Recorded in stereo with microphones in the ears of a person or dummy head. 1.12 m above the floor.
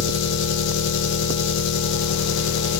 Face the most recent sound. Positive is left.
turn(degrees=65)  # may be behind; listen again after turning